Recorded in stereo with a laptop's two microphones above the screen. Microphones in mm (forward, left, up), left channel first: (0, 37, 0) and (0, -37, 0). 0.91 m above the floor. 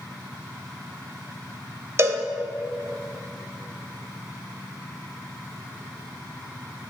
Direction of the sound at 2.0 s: 40° right (ahead or behind).